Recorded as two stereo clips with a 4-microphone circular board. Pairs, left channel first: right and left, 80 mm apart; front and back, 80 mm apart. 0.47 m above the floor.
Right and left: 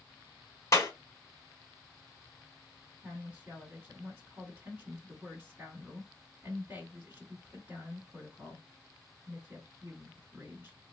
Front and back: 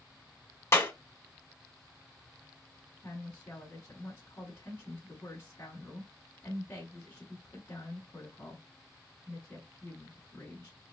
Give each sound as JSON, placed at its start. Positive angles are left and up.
{"t": 0.7, "sound": "a clap", "azimuth_deg": -50, "distance_m": 1.1}
{"t": 3.0, "sound": "a woman speaking", "azimuth_deg": 45, "distance_m": 1.6}